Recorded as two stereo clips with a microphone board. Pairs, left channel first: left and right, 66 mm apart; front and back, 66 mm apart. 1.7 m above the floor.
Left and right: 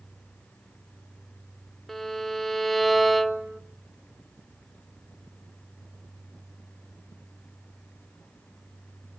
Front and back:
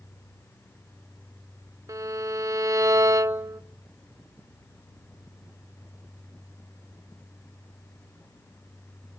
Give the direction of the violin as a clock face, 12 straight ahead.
6 o'clock.